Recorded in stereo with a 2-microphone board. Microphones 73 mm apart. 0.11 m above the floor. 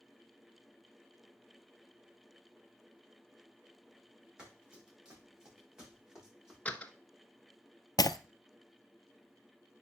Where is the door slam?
20° left (ahead or behind), 0.9 m.